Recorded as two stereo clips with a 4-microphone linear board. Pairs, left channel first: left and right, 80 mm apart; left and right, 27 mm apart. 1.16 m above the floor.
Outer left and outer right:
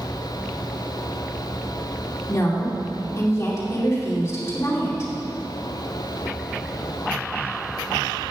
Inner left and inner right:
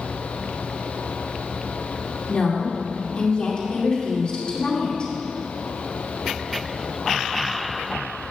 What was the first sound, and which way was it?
A woman speaking, 35° left (ahead or behind).